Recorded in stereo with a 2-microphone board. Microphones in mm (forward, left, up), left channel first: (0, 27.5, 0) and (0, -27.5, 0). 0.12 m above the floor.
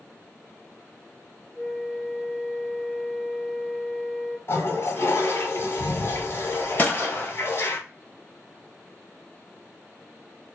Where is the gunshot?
30° left (ahead or behind), 0.8 m.